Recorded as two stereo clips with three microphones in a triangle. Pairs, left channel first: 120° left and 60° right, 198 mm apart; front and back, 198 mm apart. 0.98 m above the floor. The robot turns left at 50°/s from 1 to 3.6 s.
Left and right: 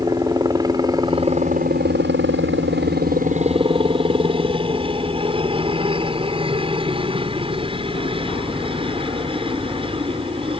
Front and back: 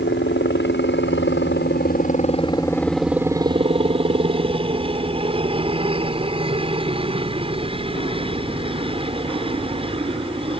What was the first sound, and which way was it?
A helicopter, 10° left.